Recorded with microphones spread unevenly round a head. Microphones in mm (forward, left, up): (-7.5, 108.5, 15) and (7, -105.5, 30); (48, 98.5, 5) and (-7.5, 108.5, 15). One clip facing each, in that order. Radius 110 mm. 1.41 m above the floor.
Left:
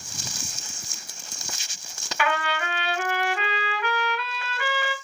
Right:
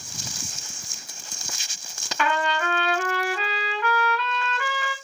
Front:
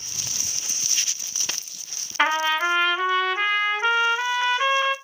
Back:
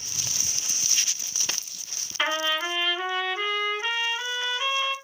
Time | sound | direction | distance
2.2 | a trumpet | 15° left | 1.8 m